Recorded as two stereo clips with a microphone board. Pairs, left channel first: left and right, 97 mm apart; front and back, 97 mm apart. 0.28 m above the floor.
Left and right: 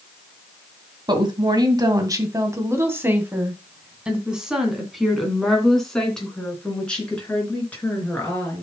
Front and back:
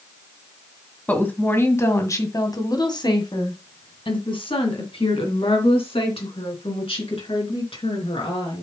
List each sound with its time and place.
1.1 s a woman speaking: 70° right, 2.0 m; by 8.6 s 15° left, 4.5 m